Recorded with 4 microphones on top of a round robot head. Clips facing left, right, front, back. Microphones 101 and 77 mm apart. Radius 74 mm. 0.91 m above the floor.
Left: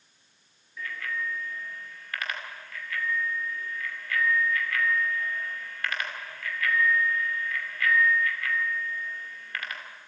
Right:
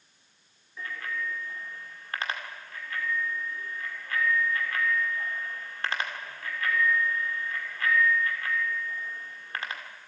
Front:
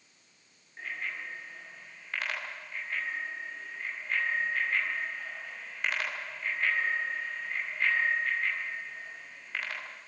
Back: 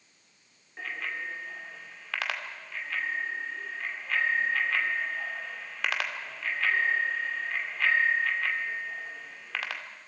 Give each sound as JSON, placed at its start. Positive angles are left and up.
{"t": 0.8, "sound": "a bicycle bell", "azimuth_deg": -155, "distance_m": 2.0}